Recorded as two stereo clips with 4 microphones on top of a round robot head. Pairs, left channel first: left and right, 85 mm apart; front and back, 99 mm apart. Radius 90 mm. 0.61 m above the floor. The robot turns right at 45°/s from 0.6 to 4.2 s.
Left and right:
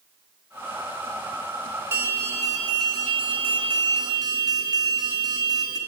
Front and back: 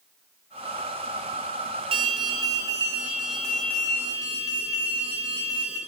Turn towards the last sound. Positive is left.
turn(degrees=-55)